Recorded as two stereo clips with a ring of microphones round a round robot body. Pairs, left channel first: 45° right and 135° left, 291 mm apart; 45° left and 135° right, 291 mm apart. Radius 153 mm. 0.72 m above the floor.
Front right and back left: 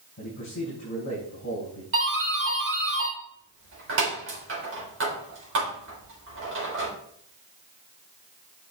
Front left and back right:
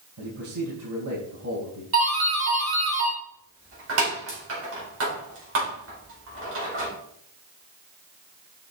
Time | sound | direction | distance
0.2 | a man speaking | 95° right | 4.5 m
1.9 | a doorbell | straight behind | 4 m